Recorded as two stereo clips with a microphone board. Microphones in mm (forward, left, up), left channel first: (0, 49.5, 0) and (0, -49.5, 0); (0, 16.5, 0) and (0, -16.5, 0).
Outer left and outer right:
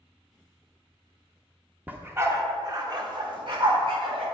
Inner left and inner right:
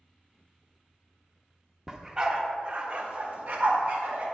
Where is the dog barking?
15° right (ahead or behind), 1.0 m; by 4.2 s 60° right (ahead or behind), 2.0 m.